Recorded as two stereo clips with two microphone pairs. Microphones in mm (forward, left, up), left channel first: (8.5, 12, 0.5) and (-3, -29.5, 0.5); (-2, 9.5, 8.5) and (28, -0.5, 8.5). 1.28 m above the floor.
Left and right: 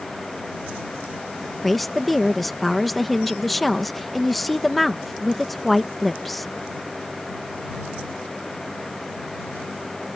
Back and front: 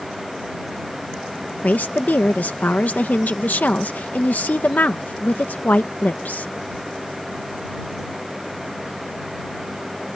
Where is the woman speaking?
160° left.